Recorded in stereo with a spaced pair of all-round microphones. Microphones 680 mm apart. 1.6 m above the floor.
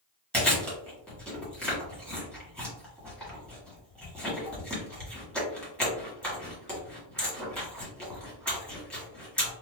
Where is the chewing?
Centre (ahead or behind), 1.4 m.